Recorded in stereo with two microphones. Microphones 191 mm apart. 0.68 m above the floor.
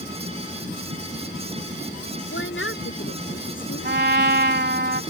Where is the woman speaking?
85° left.